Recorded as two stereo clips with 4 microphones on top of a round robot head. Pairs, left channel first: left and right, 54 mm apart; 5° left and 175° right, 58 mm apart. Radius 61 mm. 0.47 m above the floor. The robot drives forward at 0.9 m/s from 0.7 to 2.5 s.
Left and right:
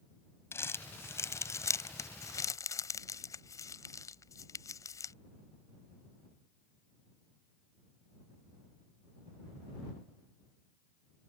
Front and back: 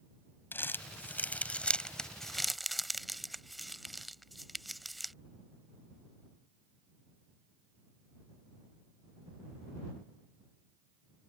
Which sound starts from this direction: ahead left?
Crumpling, at 0.5 s.